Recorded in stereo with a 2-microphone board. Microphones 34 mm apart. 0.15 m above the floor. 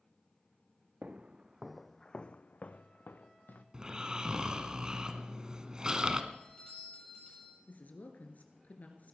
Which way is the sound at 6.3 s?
30° left (ahead or behind).